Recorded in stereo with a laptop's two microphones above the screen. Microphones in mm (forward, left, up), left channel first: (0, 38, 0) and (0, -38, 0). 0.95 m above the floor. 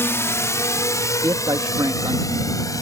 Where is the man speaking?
60° right (ahead or behind).